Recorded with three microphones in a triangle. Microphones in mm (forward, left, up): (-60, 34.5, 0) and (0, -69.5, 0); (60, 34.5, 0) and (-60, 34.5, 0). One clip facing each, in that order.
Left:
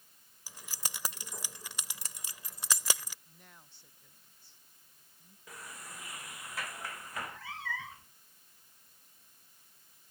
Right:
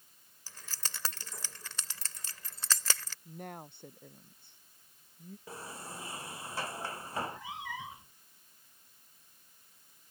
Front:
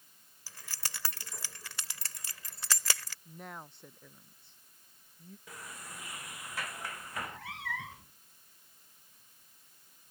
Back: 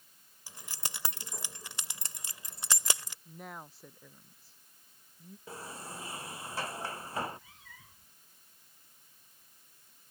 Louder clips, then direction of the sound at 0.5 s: Left 1 dB, back 2 dB; 165° left.